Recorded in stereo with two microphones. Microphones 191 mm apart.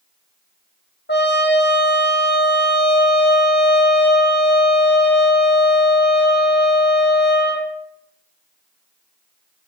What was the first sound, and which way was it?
A trumpet, 65° left (ahead or behind).